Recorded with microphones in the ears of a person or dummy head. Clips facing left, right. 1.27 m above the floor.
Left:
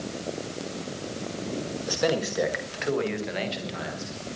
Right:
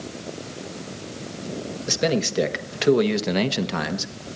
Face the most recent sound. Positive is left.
turn(degrees=-85)